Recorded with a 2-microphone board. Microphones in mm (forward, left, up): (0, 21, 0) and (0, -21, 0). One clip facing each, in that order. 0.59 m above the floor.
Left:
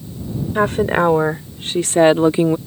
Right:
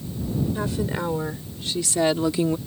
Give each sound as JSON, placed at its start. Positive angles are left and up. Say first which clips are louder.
{"t": 0.6, "sound": "a woman speaking", "louder": "left 11 dB", "side_deg": 55}